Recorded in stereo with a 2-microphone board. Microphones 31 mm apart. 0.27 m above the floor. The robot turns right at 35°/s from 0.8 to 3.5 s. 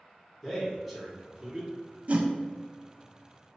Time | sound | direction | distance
0.4 | a man speaking | straight behind | 1.9 m
2.1 | a whoosh | 45° right (ahead or behind) | 0.5 m